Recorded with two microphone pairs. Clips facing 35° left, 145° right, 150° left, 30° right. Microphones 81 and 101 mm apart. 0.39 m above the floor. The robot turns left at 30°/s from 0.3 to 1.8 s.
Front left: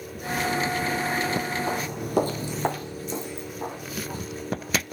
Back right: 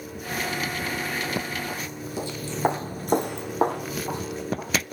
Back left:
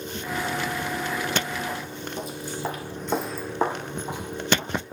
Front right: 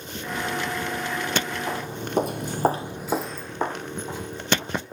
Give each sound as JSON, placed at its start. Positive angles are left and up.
{"t": 1.7, "sound": "footsteps", "azimuth_deg": 25, "distance_m": 1.5}